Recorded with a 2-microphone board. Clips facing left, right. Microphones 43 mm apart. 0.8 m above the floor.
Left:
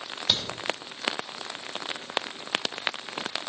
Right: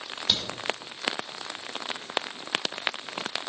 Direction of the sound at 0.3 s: 5° left (ahead or behind).